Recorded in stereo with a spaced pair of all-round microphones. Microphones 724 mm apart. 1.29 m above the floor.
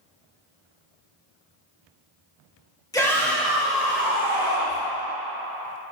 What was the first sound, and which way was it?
A shout, 5° left (ahead or behind).